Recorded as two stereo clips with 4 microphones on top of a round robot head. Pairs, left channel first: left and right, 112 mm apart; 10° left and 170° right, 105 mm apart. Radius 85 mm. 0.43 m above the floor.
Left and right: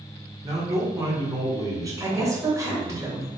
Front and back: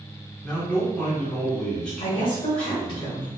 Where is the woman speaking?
30° right, 2 m.